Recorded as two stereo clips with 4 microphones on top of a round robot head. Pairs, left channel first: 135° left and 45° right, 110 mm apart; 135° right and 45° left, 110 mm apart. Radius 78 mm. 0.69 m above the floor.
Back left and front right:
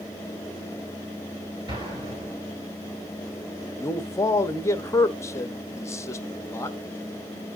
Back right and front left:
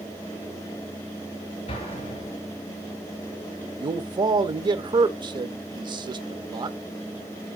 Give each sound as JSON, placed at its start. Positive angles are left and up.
{"t": 1.7, "sound": "an explosion", "azimuth_deg": -100, "distance_m": 6.5}
{"t": 3.8, "sound": "a man speaking", "azimuth_deg": 80, "distance_m": 1.1}